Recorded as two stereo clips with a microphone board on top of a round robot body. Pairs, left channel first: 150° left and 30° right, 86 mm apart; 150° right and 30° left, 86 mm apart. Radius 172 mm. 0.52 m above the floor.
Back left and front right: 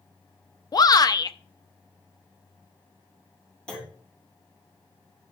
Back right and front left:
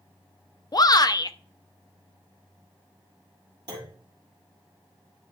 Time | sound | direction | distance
0.7 | a shout | straight behind | 0.9 m
3.7 | a clunk | 70° left | 5 m